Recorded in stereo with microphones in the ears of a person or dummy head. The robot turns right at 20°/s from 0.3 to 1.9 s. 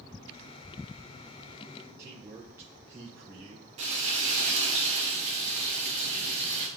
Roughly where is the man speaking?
Centre.